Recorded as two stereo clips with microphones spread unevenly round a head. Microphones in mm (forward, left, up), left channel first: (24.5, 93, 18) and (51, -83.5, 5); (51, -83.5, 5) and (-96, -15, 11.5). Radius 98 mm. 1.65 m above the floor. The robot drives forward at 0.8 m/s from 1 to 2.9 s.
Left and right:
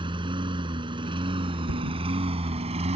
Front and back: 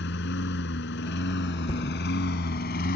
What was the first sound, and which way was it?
A lawn mower, 15° right.